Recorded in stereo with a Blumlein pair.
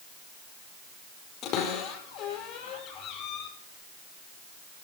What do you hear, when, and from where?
1.4 s a cupboard door: 35° left, 4.5 m